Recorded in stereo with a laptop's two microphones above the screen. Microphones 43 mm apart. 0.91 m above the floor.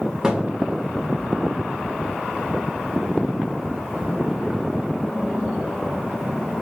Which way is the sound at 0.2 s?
15° right (ahead or behind).